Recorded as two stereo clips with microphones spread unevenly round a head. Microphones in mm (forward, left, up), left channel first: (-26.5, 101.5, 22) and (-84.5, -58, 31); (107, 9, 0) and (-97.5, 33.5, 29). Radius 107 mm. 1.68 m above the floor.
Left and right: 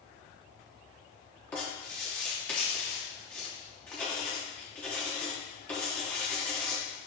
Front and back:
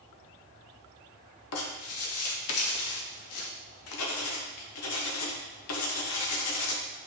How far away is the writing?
About 0.6 m.